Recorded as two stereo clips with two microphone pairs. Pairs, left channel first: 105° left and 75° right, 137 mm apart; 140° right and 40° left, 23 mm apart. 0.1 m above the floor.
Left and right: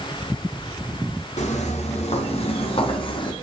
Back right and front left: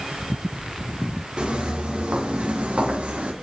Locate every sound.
1.4 s footsteps: 75° left, 3 m; by 3.3 s 55° left, 2.5 m